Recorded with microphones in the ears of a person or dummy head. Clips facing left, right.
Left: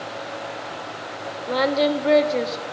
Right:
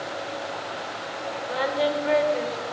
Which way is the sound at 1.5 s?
50° left (ahead or behind).